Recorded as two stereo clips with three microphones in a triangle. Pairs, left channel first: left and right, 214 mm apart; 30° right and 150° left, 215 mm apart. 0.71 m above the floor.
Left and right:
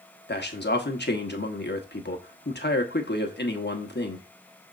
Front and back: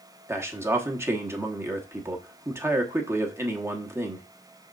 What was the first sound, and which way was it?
A man speaking, 75° left.